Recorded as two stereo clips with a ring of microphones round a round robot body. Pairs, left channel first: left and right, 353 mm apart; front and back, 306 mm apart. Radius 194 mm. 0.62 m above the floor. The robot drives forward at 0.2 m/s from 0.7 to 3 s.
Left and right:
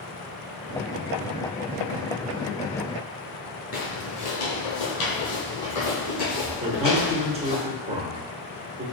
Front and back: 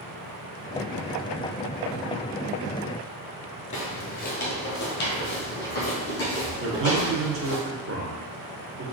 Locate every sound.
3.7 s footsteps: 45° left, 0.6 m; by 7.6 s 55° left, 3.5 m
6.6 s a man speaking: 160° right, 1.1 m